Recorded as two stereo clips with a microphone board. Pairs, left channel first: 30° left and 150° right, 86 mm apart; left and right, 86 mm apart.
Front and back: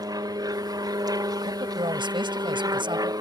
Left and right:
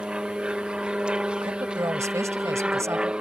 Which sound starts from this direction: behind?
An aircraft, at 0.0 s.